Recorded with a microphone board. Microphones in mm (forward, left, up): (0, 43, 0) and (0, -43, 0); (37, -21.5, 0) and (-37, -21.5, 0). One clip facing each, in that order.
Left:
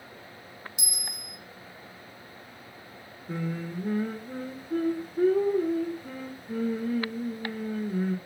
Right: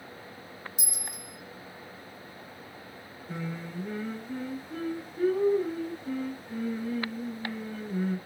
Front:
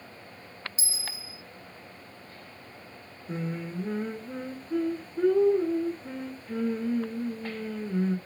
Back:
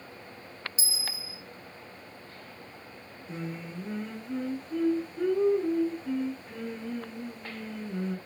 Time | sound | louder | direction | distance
0.8 | a bell | even, back 1 dB | 115° left | 1.6 m
3.3 | singing | left 4 dB, front 4 dB | 50° left | 1.6 m